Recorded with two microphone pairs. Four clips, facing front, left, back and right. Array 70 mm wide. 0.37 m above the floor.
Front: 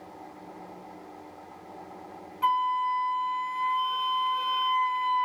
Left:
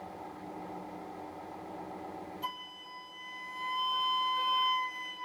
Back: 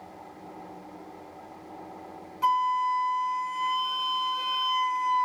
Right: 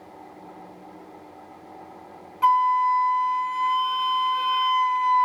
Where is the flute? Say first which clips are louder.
Right 30 dB, back 1 dB; 90° right, 0.7 m.